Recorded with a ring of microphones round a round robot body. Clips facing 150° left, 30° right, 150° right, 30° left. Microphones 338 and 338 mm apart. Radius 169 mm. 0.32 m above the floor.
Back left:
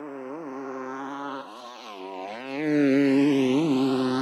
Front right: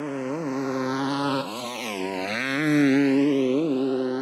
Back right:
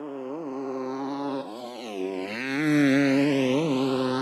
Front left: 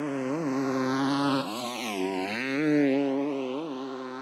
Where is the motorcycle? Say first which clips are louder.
Front right 7 dB, front left 4 dB; 5° right; by 4.2 s 150° right.